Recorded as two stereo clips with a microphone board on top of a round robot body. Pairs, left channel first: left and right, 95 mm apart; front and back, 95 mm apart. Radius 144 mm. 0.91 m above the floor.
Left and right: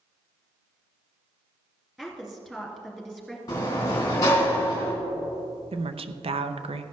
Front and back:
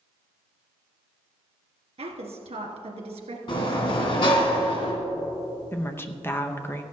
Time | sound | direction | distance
2.0 | a woman speaking | 175° right | 2 m
3.5 | a sliding door | 35° left | 2.5 m
5.7 | a woman speaking | 65° right | 0.7 m